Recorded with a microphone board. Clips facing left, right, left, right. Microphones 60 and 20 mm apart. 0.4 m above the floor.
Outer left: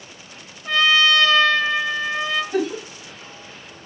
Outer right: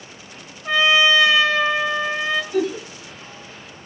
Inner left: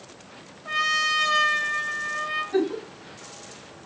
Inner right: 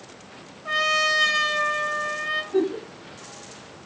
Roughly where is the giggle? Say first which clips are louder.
Outer right 1 dB, inner right 1 dB; left.